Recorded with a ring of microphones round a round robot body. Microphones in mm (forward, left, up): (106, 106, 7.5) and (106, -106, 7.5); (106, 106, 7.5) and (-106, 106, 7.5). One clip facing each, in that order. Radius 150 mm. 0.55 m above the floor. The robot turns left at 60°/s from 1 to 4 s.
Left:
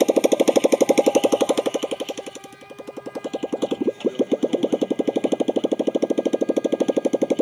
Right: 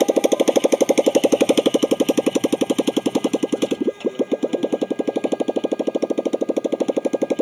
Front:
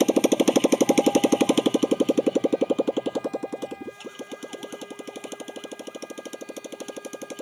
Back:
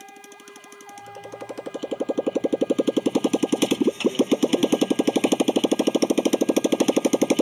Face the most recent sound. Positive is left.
turn(degrees=180)